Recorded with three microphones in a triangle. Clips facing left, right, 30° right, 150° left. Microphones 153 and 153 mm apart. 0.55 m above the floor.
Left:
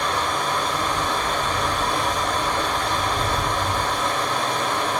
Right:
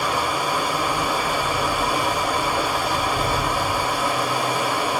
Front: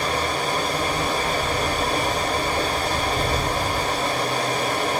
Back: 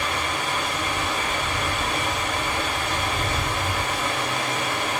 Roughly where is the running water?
Ahead.